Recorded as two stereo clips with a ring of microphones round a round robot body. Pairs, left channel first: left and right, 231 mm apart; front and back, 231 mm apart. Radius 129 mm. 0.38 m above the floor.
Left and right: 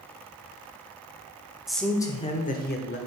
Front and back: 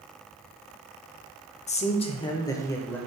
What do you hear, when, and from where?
1.7 s a man speaking: 5° right, 0.8 m; by 3.0 s 80° left, 1.1 m